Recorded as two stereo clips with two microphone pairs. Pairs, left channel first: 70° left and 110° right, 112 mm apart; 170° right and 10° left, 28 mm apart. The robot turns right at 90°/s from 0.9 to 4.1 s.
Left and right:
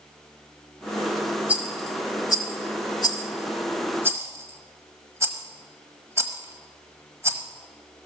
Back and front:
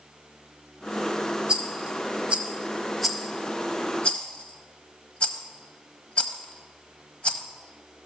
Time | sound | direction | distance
1.5 | a rattle | 40° right | 1.1 m